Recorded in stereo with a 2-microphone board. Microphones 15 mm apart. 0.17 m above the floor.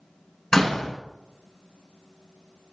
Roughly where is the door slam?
Left.